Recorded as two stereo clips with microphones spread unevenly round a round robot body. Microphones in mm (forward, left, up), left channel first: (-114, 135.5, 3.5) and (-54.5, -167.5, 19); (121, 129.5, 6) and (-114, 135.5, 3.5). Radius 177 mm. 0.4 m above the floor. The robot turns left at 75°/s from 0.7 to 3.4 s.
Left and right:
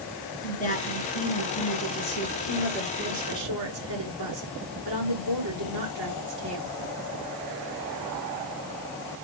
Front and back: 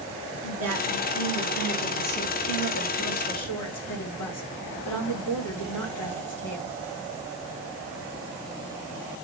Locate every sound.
0.4 s a woman speaking: 165° left, 5.5 m; by 6.7 s 35° right, 5.5 m